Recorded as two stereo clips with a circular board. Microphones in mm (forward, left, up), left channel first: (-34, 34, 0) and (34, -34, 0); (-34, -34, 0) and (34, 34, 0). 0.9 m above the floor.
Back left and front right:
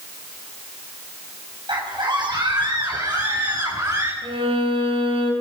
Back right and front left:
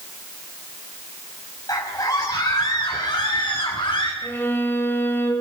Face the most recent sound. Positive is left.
turn(degrees=-65)